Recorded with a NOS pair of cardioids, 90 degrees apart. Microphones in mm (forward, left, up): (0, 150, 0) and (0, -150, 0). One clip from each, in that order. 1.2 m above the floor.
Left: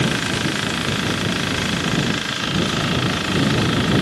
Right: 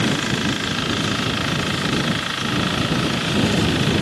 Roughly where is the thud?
No thud in this recording.